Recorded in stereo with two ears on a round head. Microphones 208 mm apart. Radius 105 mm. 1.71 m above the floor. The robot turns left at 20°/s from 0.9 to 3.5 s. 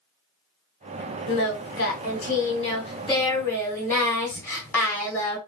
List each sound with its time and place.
1.3 s singing: 55° left, 1.0 m; by 5.4 s 10° left, 1.0 m